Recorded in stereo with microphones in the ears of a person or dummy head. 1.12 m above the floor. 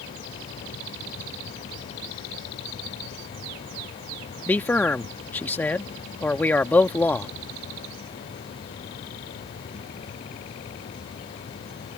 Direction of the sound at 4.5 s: 5° left (ahead or behind).